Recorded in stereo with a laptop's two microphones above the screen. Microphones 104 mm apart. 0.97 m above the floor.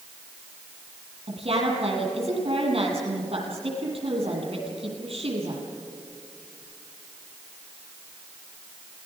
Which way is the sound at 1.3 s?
60° right (ahead or behind).